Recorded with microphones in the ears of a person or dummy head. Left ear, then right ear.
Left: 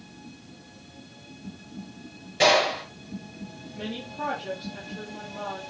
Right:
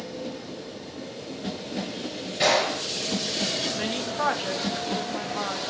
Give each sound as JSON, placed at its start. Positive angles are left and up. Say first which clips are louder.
{"t": 2.4, "sound": "a gunshot", "louder": "left 2 dB", "side_deg": 20, "distance_m": 4.0}
{"t": 3.7, "sound": "a woman speaking", "louder": "right 7 dB", "side_deg": -55, "distance_m": 2.5}